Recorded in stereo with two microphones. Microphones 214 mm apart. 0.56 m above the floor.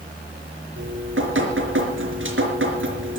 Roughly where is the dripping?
Right.